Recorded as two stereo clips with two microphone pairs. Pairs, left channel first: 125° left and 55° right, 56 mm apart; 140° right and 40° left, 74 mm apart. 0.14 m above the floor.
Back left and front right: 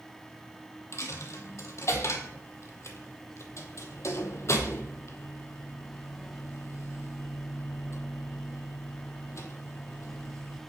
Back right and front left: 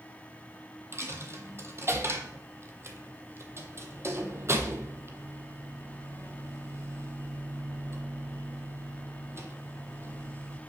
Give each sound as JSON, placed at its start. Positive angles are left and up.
{"t": 0.9, "sound": "a dropped coin", "azimuth_deg": 90, "distance_m": 1.0}